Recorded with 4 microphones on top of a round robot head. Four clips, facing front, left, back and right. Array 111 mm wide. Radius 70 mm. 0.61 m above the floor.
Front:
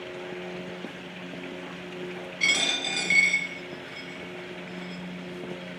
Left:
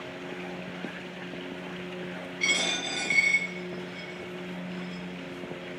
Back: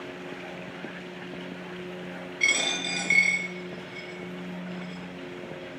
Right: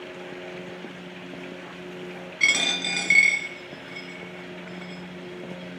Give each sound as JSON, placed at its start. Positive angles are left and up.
{"t": 2.4, "sound": "a dropped coin", "azimuth_deg": -80, "distance_m": 4.0}